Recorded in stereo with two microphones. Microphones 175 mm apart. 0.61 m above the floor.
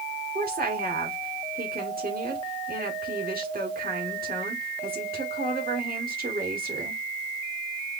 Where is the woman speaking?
55° right (ahead or behind), 1.7 m.